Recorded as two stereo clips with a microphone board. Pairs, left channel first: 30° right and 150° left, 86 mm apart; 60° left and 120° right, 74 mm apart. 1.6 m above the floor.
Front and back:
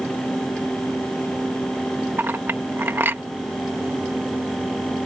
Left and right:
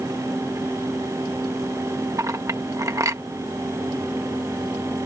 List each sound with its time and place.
2.2 s a clink: 150° right